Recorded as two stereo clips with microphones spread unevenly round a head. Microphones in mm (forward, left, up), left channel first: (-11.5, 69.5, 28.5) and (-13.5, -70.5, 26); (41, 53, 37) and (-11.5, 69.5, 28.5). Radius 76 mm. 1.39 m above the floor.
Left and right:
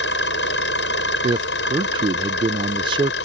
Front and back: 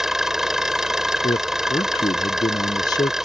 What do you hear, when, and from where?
0.0 s an engine running: 80° left
1.2 s a man speaking: 30° right